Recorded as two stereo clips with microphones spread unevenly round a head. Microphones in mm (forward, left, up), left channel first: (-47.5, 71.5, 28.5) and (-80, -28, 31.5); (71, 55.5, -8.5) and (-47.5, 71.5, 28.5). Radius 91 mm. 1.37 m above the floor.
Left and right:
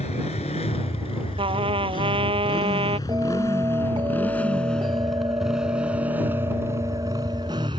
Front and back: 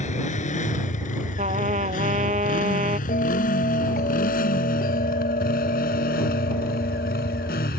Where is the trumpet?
140° right.